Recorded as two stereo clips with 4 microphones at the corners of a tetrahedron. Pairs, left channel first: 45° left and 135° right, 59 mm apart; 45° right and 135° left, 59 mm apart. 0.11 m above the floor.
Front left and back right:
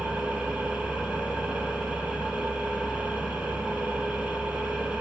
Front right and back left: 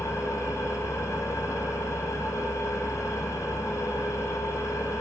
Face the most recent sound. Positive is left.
turn(degrees=-70)